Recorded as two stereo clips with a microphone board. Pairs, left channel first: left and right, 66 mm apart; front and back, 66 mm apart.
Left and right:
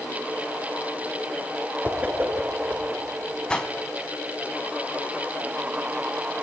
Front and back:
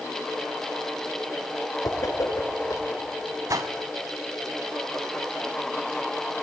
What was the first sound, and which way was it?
A whoosh, 25° right.